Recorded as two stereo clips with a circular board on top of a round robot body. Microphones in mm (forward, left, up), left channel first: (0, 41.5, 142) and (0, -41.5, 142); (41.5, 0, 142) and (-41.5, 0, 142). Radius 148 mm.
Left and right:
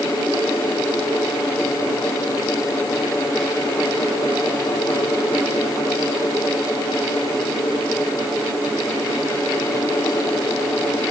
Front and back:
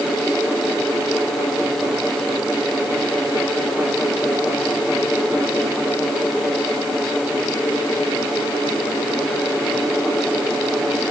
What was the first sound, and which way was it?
Only background noise.